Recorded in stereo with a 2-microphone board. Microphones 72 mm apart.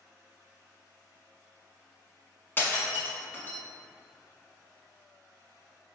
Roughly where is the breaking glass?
Left.